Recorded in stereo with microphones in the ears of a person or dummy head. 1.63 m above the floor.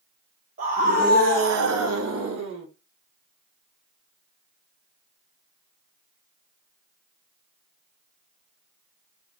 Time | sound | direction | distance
0.6 | a scream | 40° right (ahead or behind) | 1.6 m